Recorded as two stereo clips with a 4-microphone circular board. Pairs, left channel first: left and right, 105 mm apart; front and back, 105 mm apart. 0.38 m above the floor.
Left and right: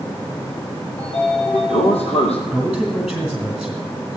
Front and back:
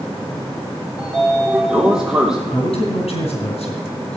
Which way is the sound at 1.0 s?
95° left.